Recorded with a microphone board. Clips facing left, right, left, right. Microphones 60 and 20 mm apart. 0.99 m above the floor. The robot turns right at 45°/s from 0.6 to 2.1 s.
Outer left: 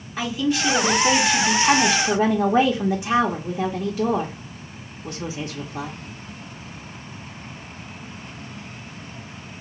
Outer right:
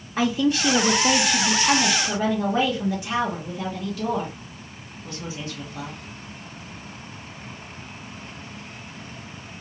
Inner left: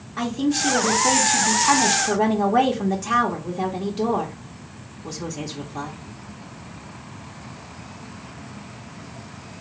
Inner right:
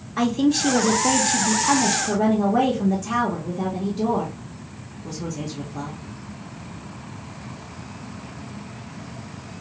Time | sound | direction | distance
0.2 | a man speaking | 30° right | 0.6 m